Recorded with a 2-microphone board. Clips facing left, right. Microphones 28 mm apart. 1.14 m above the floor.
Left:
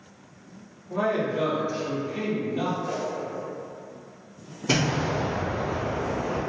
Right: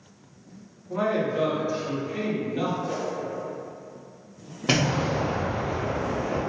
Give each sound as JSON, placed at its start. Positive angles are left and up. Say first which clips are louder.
{"t": 0.9, "sound": "a man speaking", "louder": "even", "side_deg": -10, "distance_m": 1.0}
{"t": 2.9, "sound": "a whoosh", "louder": "even", "side_deg": 50, "distance_m": 0.9}
{"t": 4.7, "sound": "an explosion", "louder": "right 1 dB", "side_deg": -55, "distance_m": 1.3}